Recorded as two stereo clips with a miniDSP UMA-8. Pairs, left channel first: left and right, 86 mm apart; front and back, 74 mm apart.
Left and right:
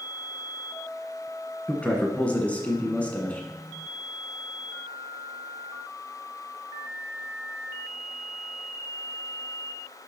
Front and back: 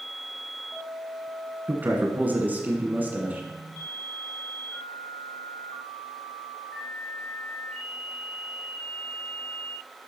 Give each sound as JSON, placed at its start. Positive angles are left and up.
{"t": 1.7, "sound": "a man speaking", "azimuth_deg": 145, "distance_m": 1.6}